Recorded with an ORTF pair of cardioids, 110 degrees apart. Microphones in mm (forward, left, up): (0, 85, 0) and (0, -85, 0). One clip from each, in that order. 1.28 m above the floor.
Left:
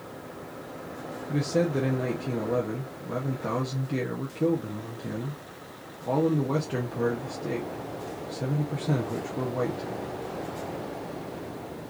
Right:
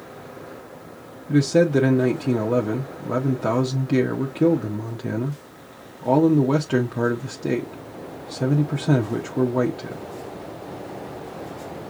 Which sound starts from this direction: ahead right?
A man speaking, at 1.3 s.